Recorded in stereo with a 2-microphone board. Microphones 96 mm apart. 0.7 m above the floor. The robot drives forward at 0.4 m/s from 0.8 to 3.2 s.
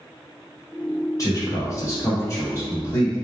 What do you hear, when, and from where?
1.2 s a man speaking: 35° left (ahead or behind), 1.0 m; by 3.2 s 25° left (ahead or behind), 1.4 m